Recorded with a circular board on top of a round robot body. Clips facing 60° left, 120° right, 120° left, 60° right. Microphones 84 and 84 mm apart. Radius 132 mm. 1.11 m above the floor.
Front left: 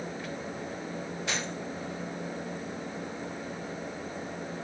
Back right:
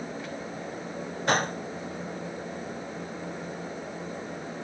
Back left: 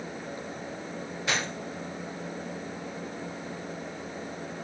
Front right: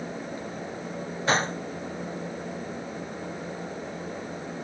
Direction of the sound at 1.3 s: 100° right.